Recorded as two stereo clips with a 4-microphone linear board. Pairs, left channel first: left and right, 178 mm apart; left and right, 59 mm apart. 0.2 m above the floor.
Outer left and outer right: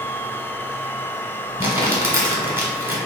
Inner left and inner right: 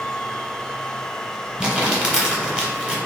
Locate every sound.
1.6 s crumpling: 10° right (ahead or behind), 1.0 m